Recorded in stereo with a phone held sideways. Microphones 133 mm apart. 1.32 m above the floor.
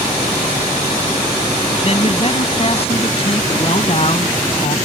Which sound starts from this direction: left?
A man speaking, at 1.8 s.